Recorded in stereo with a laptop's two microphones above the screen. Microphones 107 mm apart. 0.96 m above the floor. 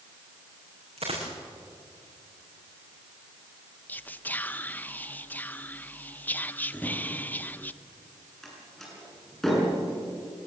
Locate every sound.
1.0 s a dropped coin: 75° right (ahead or behind), 5 m
3.9 s whispering: 15° left (ahead or behind), 0.6 m
6.7 s a drawer: 10° left (ahead or behind), 7.5 m
8.4 s a door slam: 5° left (ahead or behind), 8 m